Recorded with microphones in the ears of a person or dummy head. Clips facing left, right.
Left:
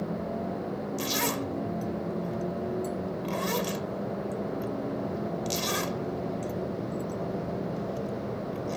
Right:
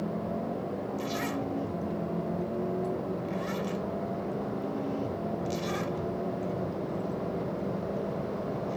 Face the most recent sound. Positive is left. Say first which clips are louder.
# left 2 dB
turn(degrees=85)